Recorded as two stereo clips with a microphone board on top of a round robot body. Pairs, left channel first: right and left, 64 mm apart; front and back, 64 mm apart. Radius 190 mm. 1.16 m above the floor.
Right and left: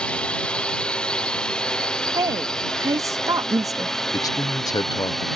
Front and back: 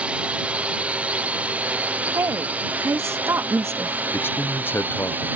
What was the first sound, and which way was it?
A drone, 140° right.